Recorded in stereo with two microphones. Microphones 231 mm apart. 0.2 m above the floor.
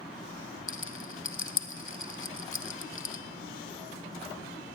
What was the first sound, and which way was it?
A rattle, 60° left (ahead or behind).